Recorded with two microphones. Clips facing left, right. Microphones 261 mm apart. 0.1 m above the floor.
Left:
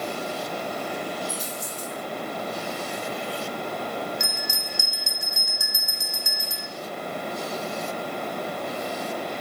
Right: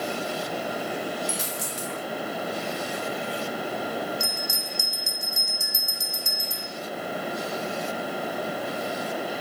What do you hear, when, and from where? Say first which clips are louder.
1.3 s a dropped coin: right 1 dB; 90° right, 2.5 m
4.2 s a bell: right 1 dB; 75° left (ahead or behind), 1.4 m